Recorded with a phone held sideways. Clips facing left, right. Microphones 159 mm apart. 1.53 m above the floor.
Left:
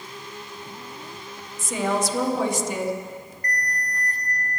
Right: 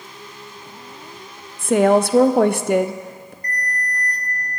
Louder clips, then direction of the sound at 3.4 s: Right 3 dB; 50° left (ahead or behind).